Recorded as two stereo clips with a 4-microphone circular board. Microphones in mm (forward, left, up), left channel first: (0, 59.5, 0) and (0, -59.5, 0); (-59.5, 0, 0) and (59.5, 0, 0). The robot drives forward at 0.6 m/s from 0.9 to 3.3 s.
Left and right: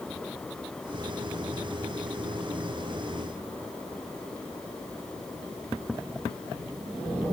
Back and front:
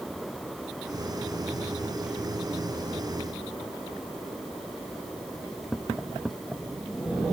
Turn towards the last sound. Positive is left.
No sound to turn to.